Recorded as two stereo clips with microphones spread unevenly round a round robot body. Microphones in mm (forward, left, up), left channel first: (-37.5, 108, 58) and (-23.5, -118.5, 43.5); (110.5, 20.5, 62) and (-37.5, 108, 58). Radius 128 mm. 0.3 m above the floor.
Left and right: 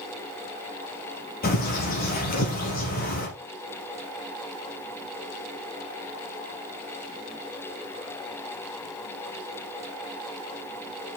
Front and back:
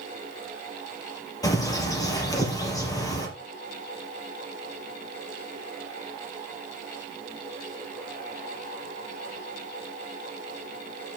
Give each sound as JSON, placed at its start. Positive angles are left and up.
{"t": 1.4, "sound": "a bird", "azimuth_deg": 40, "distance_m": 3.5}